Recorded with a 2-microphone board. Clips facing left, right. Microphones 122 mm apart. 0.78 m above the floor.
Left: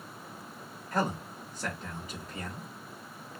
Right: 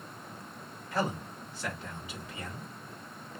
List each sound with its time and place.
0.9 s a man speaking: 40° left (ahead or behind), 1.1 m